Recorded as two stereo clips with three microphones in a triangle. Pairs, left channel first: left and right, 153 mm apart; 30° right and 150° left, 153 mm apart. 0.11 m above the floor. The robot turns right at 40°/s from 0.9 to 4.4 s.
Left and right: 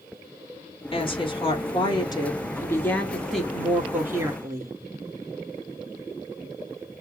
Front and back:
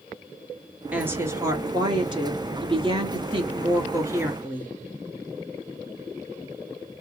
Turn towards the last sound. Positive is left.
turn(degrees=-140)